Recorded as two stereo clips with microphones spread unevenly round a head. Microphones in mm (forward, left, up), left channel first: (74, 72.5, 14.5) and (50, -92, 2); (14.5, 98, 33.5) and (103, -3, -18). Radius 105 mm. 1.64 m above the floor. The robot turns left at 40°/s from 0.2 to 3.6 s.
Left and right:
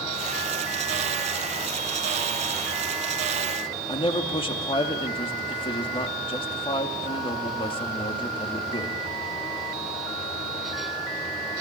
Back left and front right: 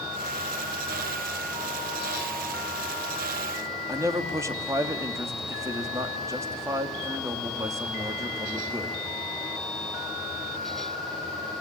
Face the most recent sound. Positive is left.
turn(degrees=25)